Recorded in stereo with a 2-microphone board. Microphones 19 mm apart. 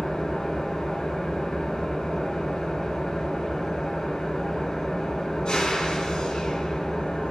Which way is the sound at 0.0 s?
55° left (ahead or behind).